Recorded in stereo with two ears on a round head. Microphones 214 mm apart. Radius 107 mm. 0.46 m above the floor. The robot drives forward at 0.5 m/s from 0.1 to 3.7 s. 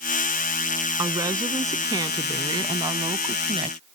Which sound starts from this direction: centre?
A woman speaking, at 1.0 s.